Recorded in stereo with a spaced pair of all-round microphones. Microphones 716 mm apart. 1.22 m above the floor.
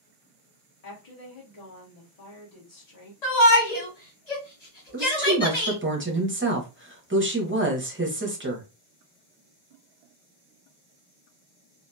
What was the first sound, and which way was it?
A woman speaking, 60° left (ahead or behind).